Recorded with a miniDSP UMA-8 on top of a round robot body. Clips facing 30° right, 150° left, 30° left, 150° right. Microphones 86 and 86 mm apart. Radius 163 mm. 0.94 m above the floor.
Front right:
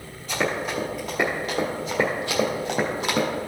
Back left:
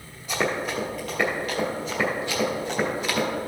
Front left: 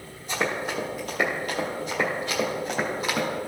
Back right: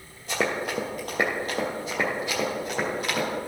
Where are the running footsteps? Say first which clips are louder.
Even, back right 1 dB; 135° right, 1.3 m; by 3.3 s 55° right, 2.0 m.